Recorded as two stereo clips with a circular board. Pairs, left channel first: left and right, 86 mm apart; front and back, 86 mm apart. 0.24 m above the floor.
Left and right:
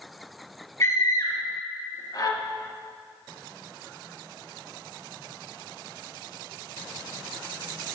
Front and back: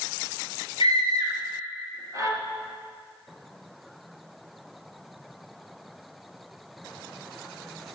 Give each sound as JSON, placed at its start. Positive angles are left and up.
{"t": 0.8, "sound": "a scream", "azimuth_deg": 145, "distance_m": 4.5}